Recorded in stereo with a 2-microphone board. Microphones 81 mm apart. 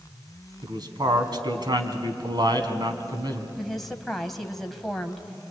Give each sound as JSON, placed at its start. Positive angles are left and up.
{"t": 0.6, "sound": "a man speaking", "side_deg": -60, "distance_m": 2.5}
{"t": 3.6, "sound": "a woman speaking", "side_deg": 0, "distance_m": 1.6}